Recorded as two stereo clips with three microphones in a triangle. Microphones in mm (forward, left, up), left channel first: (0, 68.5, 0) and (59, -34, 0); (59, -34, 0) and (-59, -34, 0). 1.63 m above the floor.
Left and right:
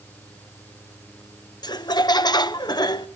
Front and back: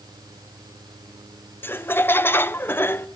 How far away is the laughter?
About 0.7 m.